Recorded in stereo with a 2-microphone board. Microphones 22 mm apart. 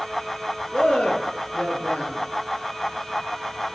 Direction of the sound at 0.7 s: 70° left (ahead or behind).